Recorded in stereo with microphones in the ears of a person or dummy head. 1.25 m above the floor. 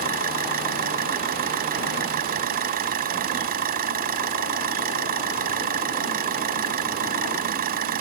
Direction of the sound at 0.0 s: 45° right (ahead or behind).